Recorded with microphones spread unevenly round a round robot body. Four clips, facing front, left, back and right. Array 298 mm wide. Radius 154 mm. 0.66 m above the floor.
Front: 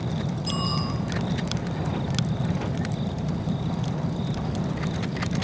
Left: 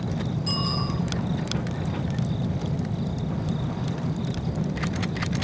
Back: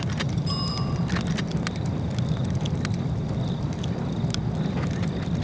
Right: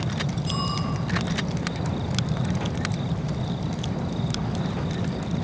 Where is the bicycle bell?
80° left, 9.5 m.